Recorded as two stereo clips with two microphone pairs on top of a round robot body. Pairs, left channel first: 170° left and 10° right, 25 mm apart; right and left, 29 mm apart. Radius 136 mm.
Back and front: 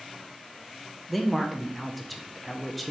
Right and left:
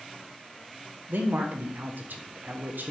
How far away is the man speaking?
About 0.6 m.